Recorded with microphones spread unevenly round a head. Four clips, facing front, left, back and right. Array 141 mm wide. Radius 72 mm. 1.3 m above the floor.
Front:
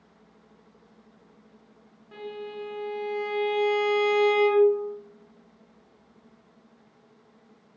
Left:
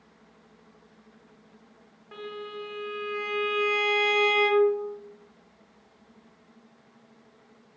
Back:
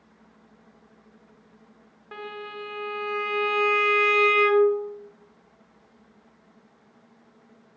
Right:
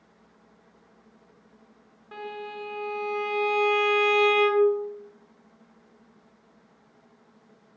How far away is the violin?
About 0.9 m.